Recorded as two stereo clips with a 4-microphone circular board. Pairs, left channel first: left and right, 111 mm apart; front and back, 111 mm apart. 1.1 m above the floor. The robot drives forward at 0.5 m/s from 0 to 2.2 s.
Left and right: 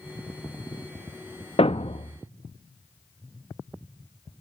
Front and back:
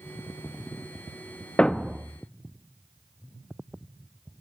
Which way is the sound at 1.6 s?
80° left.